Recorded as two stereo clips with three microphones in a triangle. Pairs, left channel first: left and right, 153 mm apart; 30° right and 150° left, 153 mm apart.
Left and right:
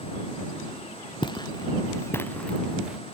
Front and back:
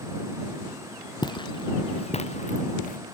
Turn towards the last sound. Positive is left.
turn(degrees=-5)